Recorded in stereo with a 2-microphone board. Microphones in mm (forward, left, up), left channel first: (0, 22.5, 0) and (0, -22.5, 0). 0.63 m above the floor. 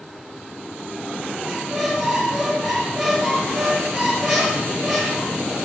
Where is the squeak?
Centre (ahead or behind), 7 m.